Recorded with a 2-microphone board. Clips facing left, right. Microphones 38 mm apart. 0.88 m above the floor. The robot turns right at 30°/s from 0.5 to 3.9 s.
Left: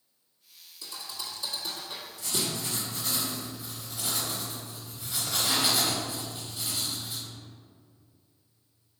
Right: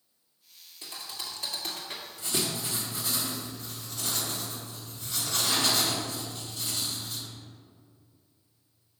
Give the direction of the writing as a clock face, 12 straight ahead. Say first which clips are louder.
Right 1 dB; 1 o'clock.